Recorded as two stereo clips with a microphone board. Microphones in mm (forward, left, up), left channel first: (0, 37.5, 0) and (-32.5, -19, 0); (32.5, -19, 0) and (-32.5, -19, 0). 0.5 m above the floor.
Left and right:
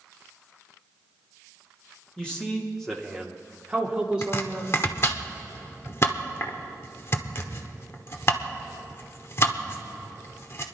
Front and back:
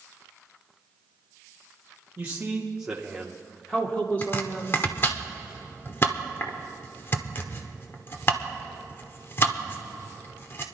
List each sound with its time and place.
2.2 s a man speaking: 130° left, 1.4 m; by 4.8 s 55° right, 1.9 m
4.2 s chopping: 35° left, 1.1 m